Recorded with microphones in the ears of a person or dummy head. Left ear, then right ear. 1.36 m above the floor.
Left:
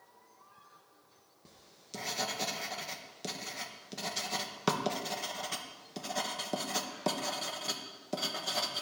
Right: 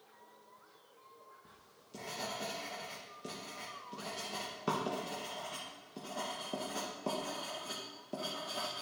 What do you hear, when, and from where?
1.4 s writing: 65° left (ahead or behind), 0.8 m